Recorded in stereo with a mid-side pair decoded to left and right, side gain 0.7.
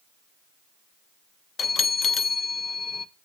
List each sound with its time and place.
1.6 s a bell: 30° left, 0.6 m